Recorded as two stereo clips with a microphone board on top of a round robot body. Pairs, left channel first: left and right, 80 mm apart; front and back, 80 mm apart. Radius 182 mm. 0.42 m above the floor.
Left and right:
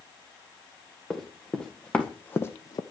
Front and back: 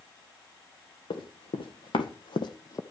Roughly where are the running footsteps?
Ahead.